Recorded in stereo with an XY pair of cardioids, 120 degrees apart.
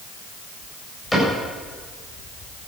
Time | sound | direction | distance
1.1 | a cupboard door | 10° left | 7.5 m